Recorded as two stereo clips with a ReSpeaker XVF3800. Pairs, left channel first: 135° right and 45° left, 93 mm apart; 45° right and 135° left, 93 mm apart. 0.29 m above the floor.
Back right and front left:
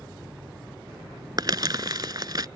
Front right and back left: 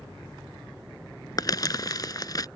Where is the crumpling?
Straight ahead.